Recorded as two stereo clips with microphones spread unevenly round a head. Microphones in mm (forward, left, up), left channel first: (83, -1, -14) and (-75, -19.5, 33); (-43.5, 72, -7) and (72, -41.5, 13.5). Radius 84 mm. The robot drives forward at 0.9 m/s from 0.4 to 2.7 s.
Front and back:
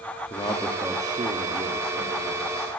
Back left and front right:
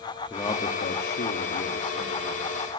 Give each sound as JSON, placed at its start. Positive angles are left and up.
{"t": 0.3, "sound": "a man speaking", "azimuth_deg": 65, "distance_m": 0.8}